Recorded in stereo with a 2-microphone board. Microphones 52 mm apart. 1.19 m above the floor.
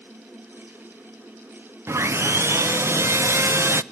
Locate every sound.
1.9 s sawing: 55° right (ahead or behind), 0.5 m